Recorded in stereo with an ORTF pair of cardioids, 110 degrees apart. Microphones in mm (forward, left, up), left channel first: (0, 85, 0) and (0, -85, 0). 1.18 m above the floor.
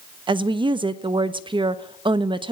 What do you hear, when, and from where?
0.3 s a woman speaking: 30° right, 1.2 m